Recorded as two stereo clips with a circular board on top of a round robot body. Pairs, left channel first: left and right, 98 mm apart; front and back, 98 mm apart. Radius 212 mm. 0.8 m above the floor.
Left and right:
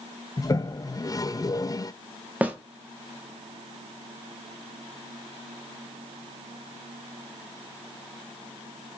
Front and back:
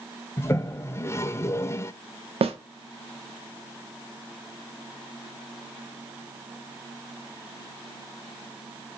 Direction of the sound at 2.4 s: 165° right.